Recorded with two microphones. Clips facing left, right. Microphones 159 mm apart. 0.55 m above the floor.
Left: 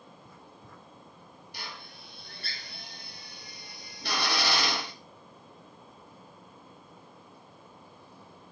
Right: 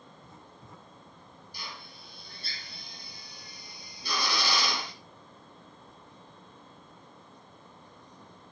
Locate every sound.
0.2 s writing: 25° right (ahead or behind), 1.7 m
1.5 s a drill: 65° left (ahead or behind), 1.9 m